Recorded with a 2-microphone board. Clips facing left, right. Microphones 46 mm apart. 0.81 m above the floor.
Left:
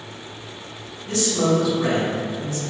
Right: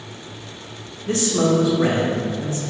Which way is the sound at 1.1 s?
35° right (ahead or behind).